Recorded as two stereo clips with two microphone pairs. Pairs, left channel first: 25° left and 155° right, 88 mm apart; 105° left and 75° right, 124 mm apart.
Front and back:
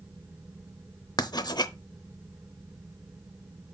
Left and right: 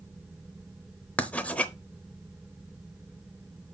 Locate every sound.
1.2 s writing: 30° left, 0.6 m